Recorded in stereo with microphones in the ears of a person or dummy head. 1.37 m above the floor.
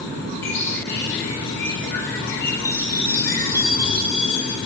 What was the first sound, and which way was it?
A bird, 15° left (ahead or behind).